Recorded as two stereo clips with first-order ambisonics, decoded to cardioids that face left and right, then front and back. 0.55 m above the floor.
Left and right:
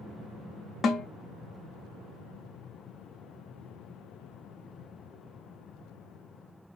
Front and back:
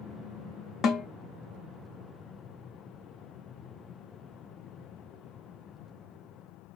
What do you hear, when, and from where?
0.8 s a snare drum: 35° left, 0.6 m